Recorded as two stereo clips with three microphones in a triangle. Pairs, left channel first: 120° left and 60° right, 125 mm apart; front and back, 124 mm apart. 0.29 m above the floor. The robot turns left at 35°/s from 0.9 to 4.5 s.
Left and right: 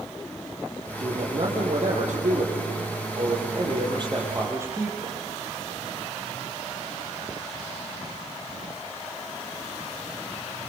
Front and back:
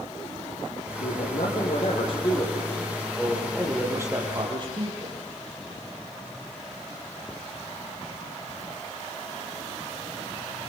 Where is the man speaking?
5° right, 8.5 m; by 5.2 s 130° right, 8.5 m.